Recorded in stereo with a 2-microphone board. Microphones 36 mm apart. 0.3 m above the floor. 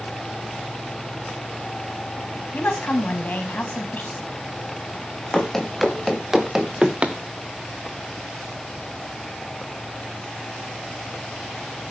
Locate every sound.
2.5 s a woman speaking: 45° left (ahead or behind), 2.5 m
5.3 s running footsteps: 5° left (ahead or behind), 3 m; by 7.2 s 40° right (ahead or behind), 1.5 m